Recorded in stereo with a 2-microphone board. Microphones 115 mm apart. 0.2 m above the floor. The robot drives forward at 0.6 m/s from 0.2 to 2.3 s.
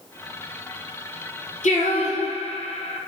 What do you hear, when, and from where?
1.6 s singing: 80° left, 1.6 m; by 3.0 s 75° left (ahead or behind), 1.7 m